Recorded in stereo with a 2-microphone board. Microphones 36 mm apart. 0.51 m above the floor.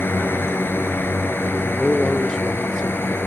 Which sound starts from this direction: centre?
A man speaking, at 1.6 s.